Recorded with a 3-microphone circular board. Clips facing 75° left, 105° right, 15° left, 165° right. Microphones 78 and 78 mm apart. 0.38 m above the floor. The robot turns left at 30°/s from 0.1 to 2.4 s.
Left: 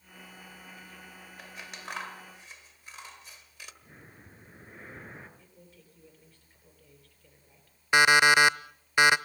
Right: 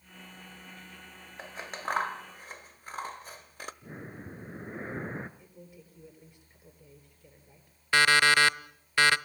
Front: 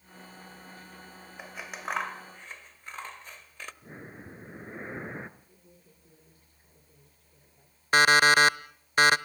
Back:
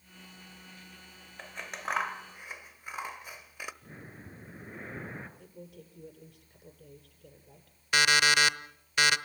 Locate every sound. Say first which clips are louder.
1.4 s scissors: right 7 dB, even; 60° right, 1.1 m; by 3.7 s 90° right, 1.1 m
3.8 s breathing: right 10 dB, front 3 dB; 50° right, 1.5 m
5.4 s a man speaking: right 5 dB, back 10 dB; straight behind, 8.5 m
7.9 s an alarm clock: left 2 dB, front 6 dB; 15° left, 0.7 m